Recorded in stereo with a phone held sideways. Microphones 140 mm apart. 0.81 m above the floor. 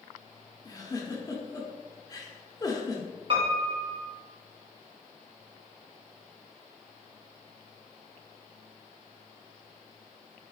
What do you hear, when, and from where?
0.7 s a giggle: 25° left (ahead or behind), 0.6 m
3.3 s a piano: 40° right (ahead or behind), 1.0 m